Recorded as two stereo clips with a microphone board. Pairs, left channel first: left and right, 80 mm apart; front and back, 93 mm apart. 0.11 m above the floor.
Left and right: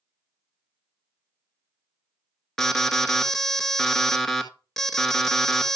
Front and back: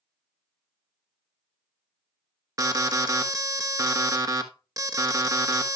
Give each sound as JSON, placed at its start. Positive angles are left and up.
{"t": 2.6, "sound": "an alarm", "azimuth_deg": 175, "distance_m": 1.1}